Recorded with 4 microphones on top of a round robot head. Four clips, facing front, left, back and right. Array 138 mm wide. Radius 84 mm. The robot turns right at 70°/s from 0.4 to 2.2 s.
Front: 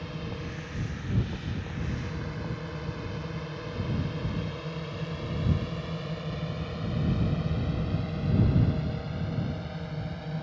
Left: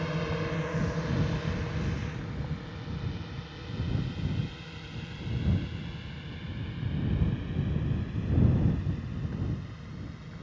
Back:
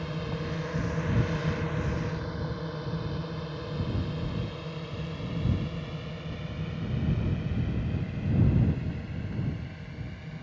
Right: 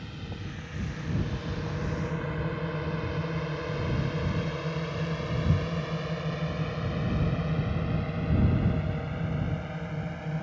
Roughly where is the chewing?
I don't hear chewing.